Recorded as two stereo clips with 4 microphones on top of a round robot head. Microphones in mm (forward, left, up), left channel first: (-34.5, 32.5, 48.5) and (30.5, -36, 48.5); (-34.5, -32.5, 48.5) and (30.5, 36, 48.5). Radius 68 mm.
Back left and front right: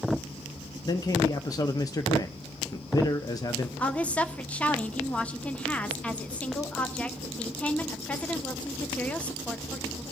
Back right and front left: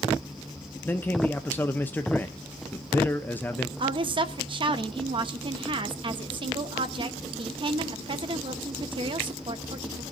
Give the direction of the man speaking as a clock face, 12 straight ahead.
7 o'clock.